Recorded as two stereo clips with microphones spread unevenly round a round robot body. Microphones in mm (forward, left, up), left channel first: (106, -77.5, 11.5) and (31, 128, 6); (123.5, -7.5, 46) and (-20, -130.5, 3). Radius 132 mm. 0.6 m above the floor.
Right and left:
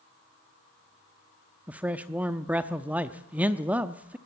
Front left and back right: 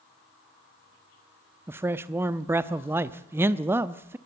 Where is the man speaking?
175° right, 0.7 m.